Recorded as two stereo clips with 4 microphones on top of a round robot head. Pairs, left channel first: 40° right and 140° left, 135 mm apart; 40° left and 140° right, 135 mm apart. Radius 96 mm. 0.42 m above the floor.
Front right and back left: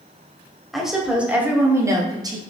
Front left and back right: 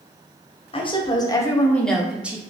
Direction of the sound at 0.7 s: 50° left.